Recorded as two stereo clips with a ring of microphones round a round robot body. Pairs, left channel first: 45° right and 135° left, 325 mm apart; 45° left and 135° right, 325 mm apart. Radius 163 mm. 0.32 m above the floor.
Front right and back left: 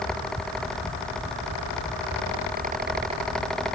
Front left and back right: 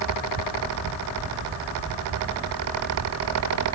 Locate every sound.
Only background noise.